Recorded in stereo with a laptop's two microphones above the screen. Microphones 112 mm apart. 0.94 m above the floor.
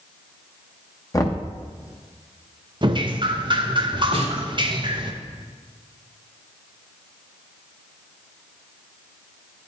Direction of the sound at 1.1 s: 30° left (ahead or behind).